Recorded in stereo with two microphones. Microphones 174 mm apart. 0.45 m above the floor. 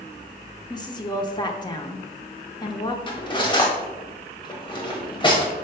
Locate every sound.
0.7 s a woman speaking: 25° left (ahead or behind), 0.8 m
3.1 s cutlery clinking: 25° left (ahead or behind), 1.2 m